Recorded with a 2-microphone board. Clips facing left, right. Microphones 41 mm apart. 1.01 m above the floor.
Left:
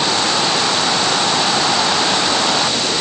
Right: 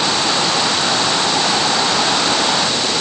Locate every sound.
Only background noise.